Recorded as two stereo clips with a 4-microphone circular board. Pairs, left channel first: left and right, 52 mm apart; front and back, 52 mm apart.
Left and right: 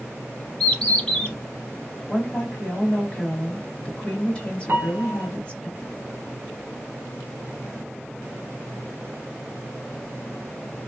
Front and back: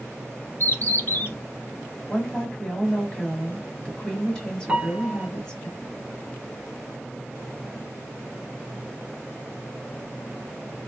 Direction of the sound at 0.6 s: 25° left.